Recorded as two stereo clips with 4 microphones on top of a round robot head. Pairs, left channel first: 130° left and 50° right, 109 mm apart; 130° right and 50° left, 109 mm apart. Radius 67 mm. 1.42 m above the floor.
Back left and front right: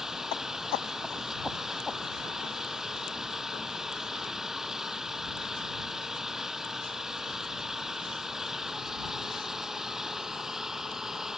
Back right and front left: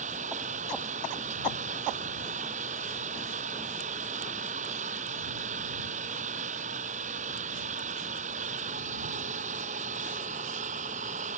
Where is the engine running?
35° left.